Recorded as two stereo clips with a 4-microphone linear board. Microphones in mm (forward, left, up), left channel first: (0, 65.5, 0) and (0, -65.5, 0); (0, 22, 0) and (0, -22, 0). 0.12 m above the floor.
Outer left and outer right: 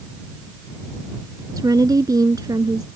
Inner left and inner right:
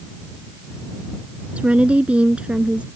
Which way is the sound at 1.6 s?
30° right (ahead or behind).